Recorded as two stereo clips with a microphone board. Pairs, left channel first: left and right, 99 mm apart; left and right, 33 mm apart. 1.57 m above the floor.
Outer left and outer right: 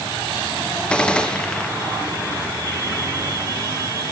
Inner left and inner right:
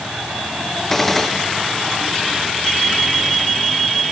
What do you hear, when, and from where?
0.9 s a gunshot: 10° left (ahead or behind), 1.2 m